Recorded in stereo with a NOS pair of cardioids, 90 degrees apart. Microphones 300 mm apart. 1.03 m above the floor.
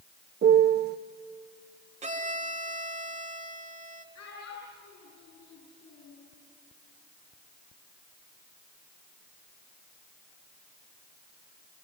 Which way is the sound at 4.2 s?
55° left.